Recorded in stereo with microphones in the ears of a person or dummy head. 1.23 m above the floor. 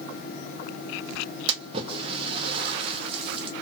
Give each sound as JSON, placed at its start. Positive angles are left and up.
{"t": 1.5, "sound": "a splash", "side_deg": -35, "distance_m": 0.8}